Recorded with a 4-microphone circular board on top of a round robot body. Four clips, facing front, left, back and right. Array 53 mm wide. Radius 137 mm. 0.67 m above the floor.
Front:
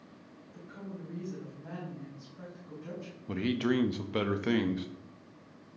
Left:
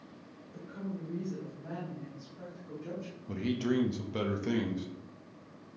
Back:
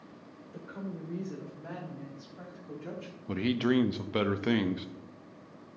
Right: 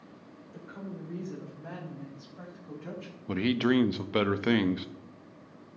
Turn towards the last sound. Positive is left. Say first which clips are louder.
# right 6 dB, back 2 dB
turn(degrees=-95)